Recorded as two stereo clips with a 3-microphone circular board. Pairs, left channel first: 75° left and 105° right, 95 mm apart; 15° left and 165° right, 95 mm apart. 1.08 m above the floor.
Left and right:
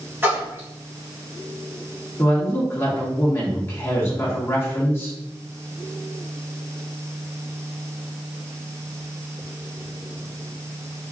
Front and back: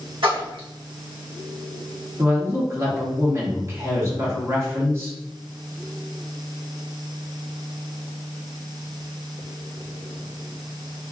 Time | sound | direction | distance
0.2 | a splash | 170° right | 1.4 m
2.2 | a woman speaking | 135° left | 1.5 m